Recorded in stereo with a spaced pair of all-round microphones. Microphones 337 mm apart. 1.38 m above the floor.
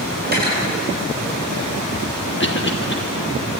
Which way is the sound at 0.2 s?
30° right (ahead or behind).